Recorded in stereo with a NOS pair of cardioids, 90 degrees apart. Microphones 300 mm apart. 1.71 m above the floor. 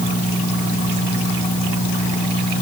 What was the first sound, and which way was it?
Only background noise.